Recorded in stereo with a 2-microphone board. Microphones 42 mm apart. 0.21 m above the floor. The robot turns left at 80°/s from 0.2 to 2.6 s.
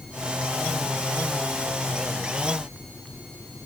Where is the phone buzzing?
No phone buzzing in this recording.